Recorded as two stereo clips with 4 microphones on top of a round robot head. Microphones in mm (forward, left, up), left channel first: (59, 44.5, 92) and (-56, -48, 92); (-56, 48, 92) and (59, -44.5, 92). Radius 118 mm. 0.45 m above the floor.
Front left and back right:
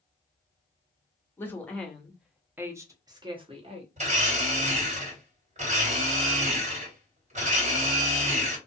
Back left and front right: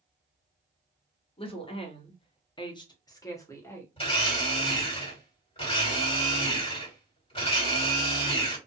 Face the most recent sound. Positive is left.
turn(degrees=-170)